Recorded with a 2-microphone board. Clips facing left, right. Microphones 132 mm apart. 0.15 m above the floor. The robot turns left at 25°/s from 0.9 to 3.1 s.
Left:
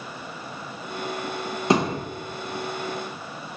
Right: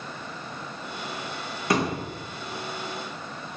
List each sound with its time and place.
1.7 s a thud: 25° left (ahead or behind), 1.2 m; by 2.0 s 30° left (ahead or behind), 1.2 m